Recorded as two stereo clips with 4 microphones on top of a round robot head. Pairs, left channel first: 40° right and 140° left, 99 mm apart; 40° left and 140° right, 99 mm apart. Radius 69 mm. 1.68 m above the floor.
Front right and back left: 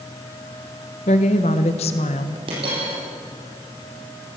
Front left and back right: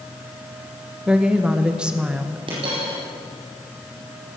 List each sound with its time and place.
1.1 s a woman speaking: 60° right, 1.2 m
2.5 s a dropped coin: straight behind, 7.5 m